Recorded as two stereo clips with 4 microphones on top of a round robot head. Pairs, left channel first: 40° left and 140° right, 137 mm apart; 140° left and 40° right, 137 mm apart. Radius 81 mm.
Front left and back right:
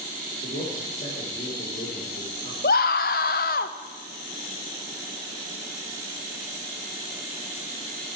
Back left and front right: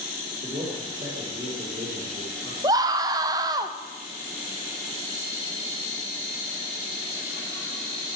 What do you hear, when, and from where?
0.4 s a man speaking: 5° left, 4.5 m
2.6 s a scream: 20° left, 0.5 m